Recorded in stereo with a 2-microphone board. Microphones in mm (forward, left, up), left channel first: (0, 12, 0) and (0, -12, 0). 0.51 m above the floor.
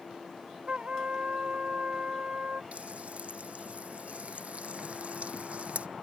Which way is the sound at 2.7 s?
55° right (ahead or behind).